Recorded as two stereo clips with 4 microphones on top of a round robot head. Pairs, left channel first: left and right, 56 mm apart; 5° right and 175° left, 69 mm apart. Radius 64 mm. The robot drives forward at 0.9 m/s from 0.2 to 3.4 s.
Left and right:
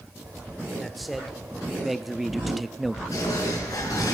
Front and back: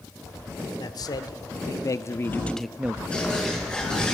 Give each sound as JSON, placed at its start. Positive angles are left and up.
{"t": 0.8, "sound": "a man speaking", "azimuth_deg": 0, "distance_m": 1.8}
{"t": 3.1, "sound": "a bird", "azimuth_deg": 70, "distance_m": 4.5}